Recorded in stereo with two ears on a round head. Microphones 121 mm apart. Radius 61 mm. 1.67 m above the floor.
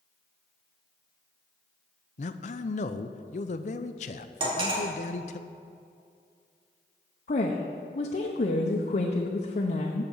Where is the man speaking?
55° left (ahead or behind), 0.6 m.